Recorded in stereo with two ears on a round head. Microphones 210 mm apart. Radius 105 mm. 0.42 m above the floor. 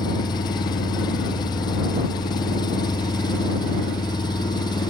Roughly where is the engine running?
Centre.